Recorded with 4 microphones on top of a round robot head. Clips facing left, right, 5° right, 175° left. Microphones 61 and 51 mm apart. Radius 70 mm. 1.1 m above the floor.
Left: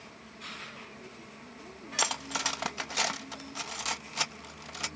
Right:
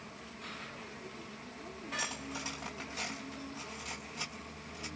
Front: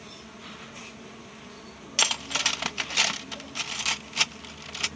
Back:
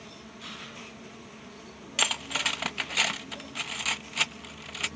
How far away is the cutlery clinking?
About 0.7 m.